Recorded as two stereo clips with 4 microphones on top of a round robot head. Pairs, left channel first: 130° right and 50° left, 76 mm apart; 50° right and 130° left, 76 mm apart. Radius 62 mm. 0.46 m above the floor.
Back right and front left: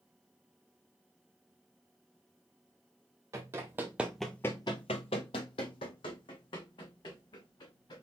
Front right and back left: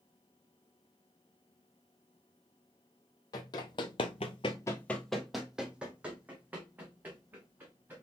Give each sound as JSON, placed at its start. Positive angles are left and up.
{"t": 3.3, "sound": "running footsteps", "azimuth_deg": -10, "distance_m": 1.1}